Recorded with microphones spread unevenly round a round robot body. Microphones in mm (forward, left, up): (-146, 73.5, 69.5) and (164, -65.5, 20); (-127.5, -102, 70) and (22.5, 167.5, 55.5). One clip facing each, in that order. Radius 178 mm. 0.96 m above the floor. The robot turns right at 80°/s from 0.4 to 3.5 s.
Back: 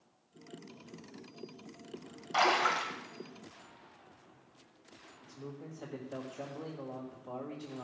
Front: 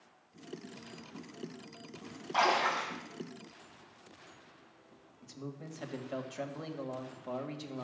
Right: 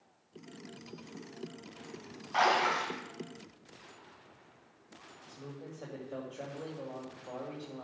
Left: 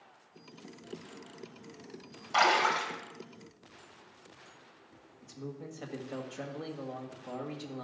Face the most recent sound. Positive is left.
turn(degrees=10)